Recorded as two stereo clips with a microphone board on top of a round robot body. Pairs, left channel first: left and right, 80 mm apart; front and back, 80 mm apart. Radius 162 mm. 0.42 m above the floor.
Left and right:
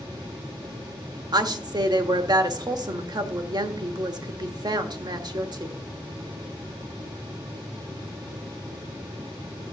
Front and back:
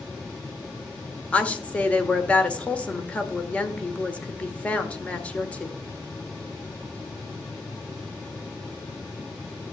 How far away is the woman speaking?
About 1.7 m.